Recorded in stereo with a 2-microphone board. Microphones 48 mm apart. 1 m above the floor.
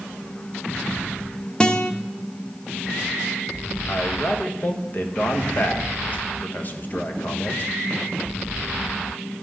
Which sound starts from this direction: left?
A man speaking, at 3.9 s.